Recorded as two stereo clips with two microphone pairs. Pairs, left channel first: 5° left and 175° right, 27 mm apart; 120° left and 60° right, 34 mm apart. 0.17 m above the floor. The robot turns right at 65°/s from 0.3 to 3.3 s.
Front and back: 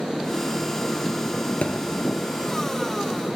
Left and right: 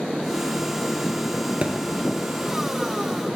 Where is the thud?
20° right, 0.9 m; by 1.7 s 15° right, 0.9 m.